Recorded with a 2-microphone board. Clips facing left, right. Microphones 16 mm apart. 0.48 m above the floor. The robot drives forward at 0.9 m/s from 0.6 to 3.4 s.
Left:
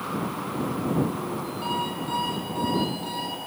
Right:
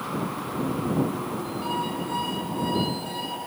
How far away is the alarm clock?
About 10 m.